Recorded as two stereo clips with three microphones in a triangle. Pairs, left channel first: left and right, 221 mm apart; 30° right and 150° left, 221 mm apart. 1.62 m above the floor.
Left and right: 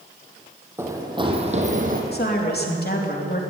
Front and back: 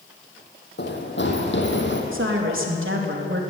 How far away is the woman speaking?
About 3.5 m.